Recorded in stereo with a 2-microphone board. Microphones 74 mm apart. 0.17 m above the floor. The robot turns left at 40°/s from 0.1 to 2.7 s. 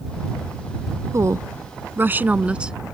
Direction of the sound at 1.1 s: 100° right.